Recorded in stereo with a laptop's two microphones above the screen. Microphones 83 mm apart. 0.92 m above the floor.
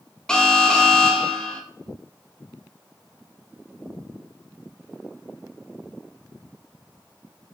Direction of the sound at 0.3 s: 10° left (ahead or behind).